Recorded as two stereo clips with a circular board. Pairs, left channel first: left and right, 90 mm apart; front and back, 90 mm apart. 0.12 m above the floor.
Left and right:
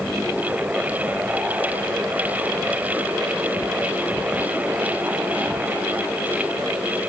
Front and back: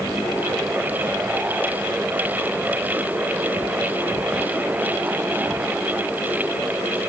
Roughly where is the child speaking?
I don't hear a child speaking.